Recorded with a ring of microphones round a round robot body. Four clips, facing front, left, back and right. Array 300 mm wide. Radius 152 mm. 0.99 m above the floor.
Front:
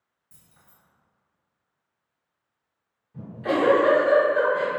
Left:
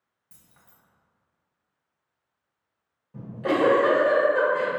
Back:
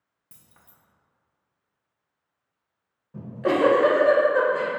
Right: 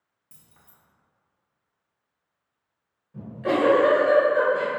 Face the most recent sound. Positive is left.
turn(degrees=160)